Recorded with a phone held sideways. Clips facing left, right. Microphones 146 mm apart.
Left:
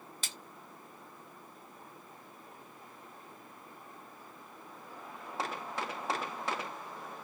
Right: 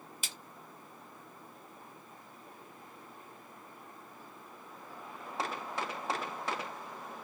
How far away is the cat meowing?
No cat meowing in this recording.